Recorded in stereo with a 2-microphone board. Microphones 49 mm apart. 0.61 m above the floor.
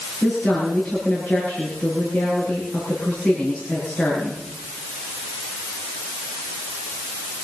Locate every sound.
0.2 s a woman speaking: 25° left (ahead or behind), 8 m